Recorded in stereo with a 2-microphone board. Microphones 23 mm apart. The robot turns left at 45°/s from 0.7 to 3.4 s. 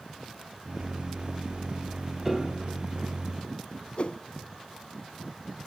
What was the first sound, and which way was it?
A piano, 10° right (ahead or behind).